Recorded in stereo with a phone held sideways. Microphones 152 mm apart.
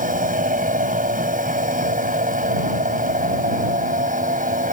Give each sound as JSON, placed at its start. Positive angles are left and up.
{"t": 0.0, "sound": "a machine running", "side_deg": -65}